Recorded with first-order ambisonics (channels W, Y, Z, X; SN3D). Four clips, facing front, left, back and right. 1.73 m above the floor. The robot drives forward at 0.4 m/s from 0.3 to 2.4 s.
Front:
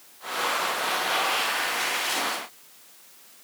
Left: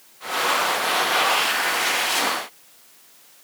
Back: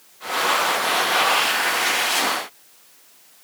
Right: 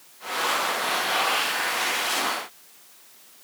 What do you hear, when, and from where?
Only background noise.